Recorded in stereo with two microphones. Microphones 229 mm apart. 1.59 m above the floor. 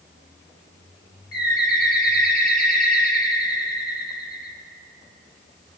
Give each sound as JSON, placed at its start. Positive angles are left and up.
{"t": 1.3, "sound": "a bird", "side_deg": 45, "distance_m": 3.0}